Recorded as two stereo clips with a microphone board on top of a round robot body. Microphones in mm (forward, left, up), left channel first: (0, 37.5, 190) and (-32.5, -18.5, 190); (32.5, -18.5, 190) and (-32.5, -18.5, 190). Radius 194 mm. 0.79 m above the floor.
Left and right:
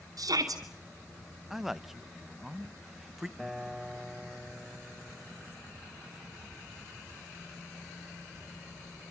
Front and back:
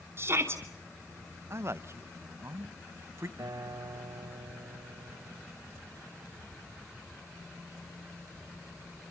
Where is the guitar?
150° left, 2.5 m.